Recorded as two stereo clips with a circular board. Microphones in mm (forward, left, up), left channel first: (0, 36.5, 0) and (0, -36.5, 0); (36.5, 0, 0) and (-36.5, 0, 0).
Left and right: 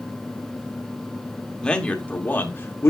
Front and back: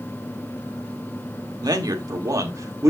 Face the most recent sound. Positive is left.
turn(degrees=140)